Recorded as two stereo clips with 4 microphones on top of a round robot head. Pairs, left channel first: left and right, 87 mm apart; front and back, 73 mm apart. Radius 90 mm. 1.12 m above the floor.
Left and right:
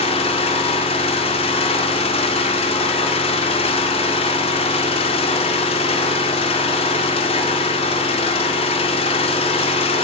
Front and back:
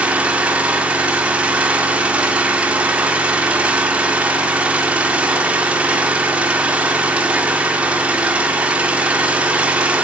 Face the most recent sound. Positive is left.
turn(degrees=110)